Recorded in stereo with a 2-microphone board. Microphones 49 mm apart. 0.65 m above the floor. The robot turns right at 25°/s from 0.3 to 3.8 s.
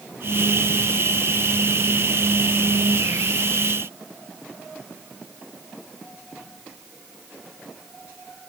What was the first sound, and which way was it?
Only background noise.